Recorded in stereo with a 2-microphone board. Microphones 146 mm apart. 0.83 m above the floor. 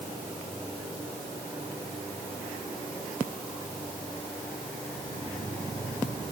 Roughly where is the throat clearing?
No throat clearing in this recording.